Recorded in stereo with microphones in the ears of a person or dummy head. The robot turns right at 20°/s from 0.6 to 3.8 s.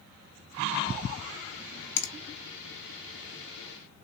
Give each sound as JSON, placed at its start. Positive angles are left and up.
{"t": 2.0, "sound": "a finger snap", "side_deg": 60, "distance_m": 0.8}